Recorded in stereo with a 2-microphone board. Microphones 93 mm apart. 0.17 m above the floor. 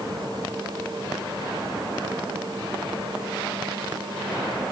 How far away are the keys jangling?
No keys jangling in this recording.